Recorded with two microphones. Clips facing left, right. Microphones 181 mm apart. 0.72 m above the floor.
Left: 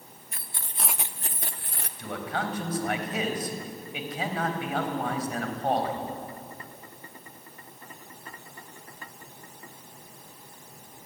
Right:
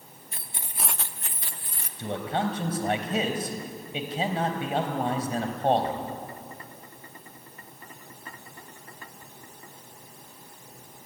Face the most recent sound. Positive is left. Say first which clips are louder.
# right 4 dB
turn(degrees=-30)  # may be behind; listen again after turning